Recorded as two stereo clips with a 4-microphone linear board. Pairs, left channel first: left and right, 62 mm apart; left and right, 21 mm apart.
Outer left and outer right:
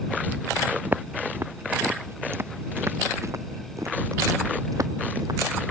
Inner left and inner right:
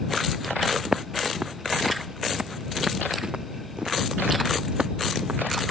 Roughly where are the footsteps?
Right.